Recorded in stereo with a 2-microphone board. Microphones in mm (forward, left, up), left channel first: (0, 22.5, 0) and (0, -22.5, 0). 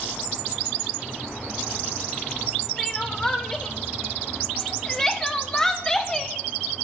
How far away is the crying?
About 2.5 m.